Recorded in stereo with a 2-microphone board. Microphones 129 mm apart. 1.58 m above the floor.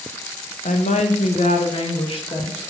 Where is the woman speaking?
75° left (ahead or behind), 1.4 m; by 2.6 s 40° left (ahead or behind), 2 m.